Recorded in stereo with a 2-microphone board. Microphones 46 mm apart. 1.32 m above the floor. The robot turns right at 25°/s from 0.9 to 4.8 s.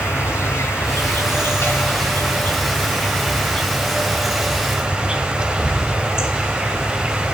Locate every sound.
0.0 s an insect: 100° left, 2 m; by 7.3 s 165° right, 2 m